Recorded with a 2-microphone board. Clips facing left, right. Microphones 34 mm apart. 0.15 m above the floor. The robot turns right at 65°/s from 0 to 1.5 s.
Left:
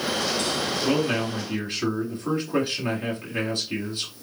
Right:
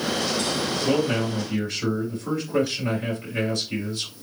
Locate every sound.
0.8 s a man speaking: 85° left, 2 m; by 4.1 s 130° left, 2 m